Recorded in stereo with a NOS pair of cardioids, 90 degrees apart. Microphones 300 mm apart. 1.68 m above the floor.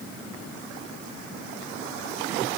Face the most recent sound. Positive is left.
No sound to turn to.